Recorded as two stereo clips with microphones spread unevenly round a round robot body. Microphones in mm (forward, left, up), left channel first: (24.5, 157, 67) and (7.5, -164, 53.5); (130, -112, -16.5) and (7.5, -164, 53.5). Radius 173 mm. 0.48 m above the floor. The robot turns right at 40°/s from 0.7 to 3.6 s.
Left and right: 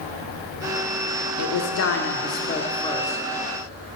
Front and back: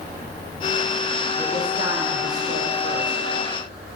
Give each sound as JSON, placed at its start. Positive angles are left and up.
{"t": 1.4, "sound": "a woman speaking", "azimuth_deg": 100, "distance_m": 1.5}